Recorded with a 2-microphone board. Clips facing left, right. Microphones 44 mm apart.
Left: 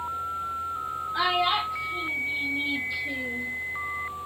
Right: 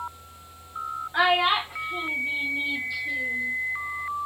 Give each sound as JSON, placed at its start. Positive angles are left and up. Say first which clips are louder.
{"t": 1.1, "sound": "a child speaking", "louder": "right 3 dB", "side_deg": -55, "distance_m": 1.0}